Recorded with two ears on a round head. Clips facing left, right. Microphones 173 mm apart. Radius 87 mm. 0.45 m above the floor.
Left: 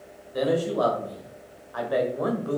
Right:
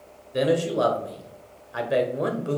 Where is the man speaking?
30° right (ahead or behind), 1.6 m.